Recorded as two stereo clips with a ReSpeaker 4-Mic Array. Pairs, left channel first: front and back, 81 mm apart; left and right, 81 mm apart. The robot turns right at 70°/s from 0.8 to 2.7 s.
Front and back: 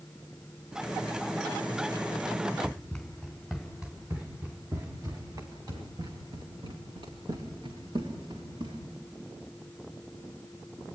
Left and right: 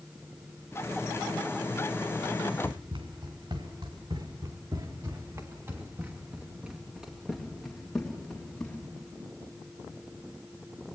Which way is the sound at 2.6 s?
90° right.